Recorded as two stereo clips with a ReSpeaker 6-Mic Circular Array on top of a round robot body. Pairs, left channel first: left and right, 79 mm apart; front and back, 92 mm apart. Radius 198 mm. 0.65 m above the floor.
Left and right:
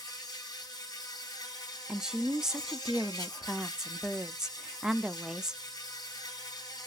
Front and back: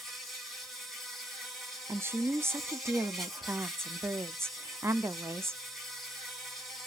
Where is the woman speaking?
165° right, 0.6 m.